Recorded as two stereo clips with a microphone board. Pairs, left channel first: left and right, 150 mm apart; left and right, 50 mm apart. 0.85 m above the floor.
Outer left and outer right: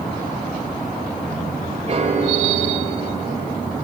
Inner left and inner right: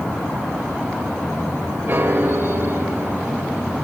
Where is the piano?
45° right (ahead or behind), 1.8 m.